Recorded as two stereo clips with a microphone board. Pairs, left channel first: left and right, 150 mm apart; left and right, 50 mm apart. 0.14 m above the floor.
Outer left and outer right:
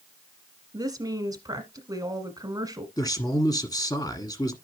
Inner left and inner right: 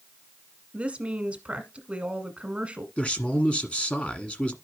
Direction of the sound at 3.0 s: 25° left (ahead or behind).